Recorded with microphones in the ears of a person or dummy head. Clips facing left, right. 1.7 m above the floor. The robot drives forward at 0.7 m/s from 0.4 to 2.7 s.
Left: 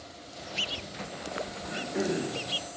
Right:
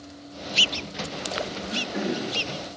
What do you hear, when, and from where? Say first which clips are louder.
1.6 s throat clearing: even; 55° right (ahead or behind), 1.3 m; by 2.4 s 50° right (ahead or behind), 1.3 m